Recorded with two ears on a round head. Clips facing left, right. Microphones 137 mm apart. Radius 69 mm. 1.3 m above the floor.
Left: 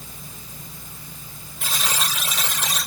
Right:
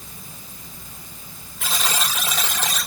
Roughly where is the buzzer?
Right.